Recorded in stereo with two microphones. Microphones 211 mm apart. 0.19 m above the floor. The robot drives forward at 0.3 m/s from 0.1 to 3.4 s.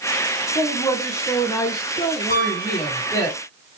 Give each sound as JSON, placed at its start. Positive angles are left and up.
{"t": 0.6, "sound": "a woman speaking", "side_deg": 15, "distance_m": 1.6}
{"t": 2.3, "sound": "a piano", "side_deg": -50, "distance_m": 3.0}